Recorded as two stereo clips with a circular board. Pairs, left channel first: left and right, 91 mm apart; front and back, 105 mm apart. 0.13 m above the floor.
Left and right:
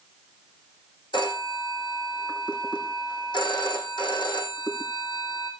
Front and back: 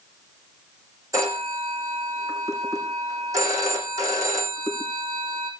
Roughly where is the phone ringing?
Behind left.